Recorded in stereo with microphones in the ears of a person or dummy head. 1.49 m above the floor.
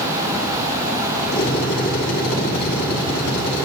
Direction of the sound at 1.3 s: 60° left (ahead or behind).